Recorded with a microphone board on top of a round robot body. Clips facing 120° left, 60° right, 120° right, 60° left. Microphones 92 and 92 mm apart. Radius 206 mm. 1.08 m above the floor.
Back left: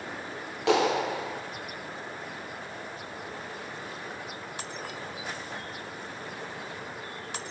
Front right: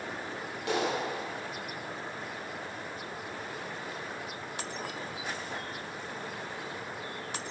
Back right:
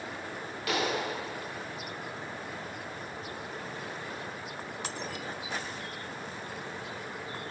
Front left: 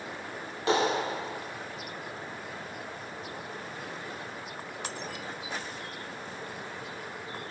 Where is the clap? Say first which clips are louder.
Back left 7 dB, front left 5 dB; 120° left, 3 m.